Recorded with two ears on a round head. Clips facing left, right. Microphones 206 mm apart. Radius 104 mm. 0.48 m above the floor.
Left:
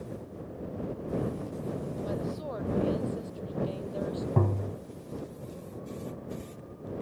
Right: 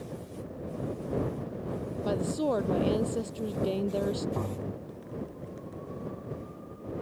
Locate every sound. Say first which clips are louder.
2.0 s a woman speaking: right 10 dB; 65° right (ahead or behind); by 4.3 s 60° right (ahead or behind)
4.4 s tapping: left 4 dB; 55° left (ahead or behind)